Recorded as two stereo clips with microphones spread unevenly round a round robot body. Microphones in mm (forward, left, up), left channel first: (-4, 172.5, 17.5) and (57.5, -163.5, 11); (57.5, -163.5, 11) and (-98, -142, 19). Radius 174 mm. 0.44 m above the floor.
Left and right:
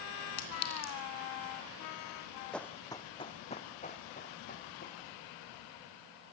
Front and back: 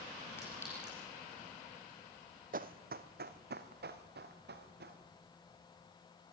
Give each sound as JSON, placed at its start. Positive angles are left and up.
{"t": 0.4, "sound": "a clink", "azimuth_deg": 75, "distance_m": 3.0}
{"t": 2.5, "sound": "running footsteps", "azimuth_deg": -175, "distance_m": 0.9}